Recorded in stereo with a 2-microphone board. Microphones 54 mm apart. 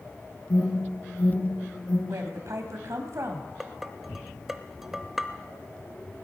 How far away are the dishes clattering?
About 0.8 m.